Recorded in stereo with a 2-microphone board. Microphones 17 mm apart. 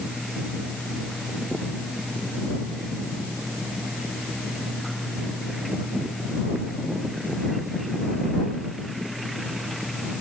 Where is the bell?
No bell in this recording.